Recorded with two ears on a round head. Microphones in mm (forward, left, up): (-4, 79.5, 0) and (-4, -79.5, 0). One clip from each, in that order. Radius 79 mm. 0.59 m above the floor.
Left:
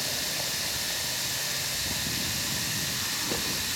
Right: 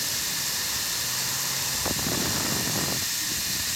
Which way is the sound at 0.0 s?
20° right (ahead or behind).